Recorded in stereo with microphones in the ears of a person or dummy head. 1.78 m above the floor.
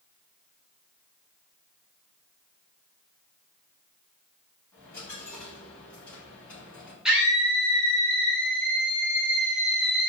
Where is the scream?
5° right (ahead or behind), 2.5 m.